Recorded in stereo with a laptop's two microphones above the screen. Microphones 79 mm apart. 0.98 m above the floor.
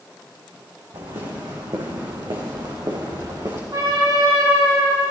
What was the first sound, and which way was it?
Footsteps, 75° right (ahead or behind).